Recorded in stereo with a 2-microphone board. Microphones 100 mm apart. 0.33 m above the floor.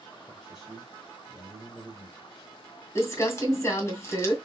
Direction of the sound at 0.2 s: 5° right (ahead or behind).